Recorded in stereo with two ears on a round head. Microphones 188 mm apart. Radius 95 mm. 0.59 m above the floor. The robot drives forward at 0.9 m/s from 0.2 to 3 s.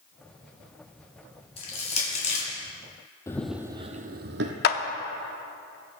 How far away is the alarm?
No alarm in this recording.